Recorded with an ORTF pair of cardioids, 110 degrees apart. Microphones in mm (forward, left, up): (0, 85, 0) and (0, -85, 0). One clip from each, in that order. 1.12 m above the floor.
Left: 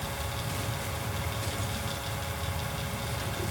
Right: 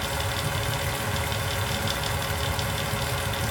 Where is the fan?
65° right, 2 m.